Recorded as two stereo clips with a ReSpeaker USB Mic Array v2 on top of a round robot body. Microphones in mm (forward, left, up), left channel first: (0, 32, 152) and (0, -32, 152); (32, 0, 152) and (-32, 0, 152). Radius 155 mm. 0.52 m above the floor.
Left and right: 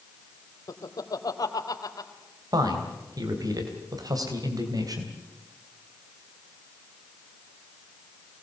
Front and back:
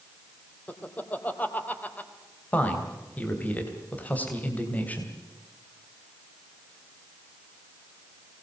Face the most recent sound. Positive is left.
turn(degrees=-65)